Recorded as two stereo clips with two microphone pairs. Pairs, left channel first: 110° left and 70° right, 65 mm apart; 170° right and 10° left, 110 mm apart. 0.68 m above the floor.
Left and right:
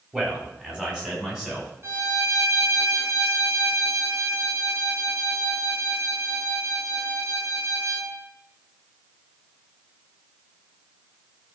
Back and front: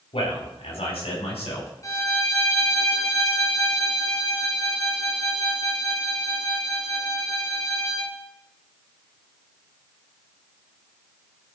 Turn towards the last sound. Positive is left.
turn(degrees=-110)